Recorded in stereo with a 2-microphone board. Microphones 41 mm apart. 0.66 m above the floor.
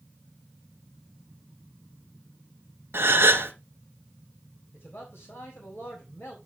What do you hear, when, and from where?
2.9 s a gasp: 65° right (ahead or behind), 1.3 m
4.7 s a man speaking: 65° left (ahead or behind), 4 m